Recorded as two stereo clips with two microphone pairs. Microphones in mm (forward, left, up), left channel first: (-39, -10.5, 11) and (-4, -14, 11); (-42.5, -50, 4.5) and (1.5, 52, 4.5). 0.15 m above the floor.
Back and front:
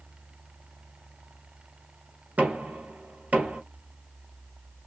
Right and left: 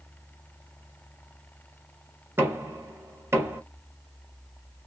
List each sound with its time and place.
2.4 s knocking: 10° left, 2.0 m